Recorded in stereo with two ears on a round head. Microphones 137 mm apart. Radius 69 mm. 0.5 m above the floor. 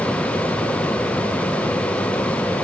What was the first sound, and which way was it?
Only background noise.